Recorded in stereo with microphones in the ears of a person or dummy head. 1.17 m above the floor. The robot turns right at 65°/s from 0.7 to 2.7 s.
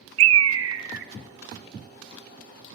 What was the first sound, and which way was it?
A bird, 85° right.